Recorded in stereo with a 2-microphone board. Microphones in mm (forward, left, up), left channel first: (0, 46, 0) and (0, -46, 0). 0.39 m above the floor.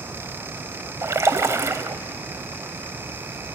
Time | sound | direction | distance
1.0 | a splash | 30° right (ahead or behind) | 0.6 m